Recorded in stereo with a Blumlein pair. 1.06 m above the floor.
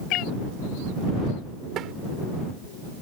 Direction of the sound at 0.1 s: 40° left.